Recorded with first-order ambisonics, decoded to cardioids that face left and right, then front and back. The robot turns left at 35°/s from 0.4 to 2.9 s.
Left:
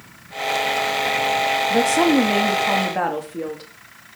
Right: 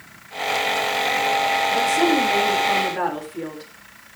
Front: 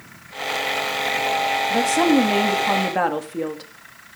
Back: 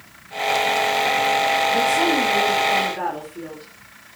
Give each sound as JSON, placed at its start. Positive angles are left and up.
{"t": 1.7, "sound": "a woman speaking", "azimuth_deg": 65, "distance_m": 3.0}